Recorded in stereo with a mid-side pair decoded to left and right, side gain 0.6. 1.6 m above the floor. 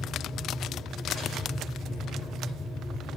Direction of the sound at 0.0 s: 40° left.